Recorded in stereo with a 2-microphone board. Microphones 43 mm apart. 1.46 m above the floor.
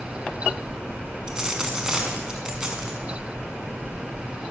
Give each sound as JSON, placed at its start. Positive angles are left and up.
{"t": 1.3, "sound": "a dropped coin", "side_deg": -15, "distance_m": 5.0}